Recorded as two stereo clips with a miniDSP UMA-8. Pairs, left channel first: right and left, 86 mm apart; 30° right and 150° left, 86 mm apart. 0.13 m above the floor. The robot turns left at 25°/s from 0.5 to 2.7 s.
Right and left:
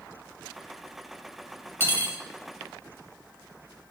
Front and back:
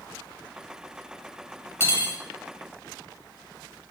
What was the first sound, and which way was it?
Cutlery clinking, 50° right.